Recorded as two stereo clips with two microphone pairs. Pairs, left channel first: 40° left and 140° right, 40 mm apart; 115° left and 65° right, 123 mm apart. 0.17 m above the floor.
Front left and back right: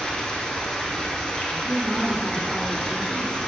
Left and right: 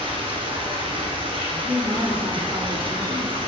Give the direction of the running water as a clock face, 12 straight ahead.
1 o'clock.